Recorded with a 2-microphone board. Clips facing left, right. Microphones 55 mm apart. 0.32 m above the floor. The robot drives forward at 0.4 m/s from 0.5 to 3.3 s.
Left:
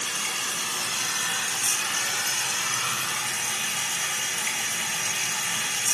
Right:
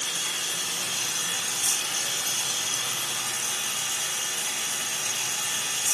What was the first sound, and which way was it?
Running water, 55° left (ahead or behind).